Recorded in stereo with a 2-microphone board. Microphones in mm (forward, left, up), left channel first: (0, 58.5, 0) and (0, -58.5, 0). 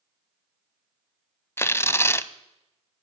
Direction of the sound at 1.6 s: 20° left (ahead or behind).